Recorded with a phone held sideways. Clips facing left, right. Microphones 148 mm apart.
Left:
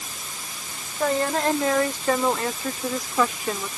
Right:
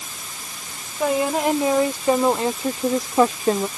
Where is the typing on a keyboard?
I don't hear typing on a keyboard.